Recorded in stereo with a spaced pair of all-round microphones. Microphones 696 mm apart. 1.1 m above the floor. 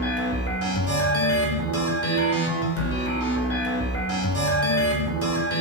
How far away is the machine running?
About 4 m.